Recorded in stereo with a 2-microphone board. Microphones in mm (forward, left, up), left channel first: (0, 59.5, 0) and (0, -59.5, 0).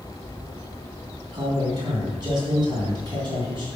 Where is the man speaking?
40° right (ahead or behind), 3 m.